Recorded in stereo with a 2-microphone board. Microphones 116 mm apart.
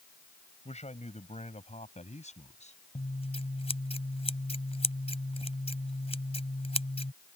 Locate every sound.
0.7 s a man speaking: 70° left (ahead or behind); by 2.8 s 80° left
3.0 s scissors: 60° left (ahead or behind)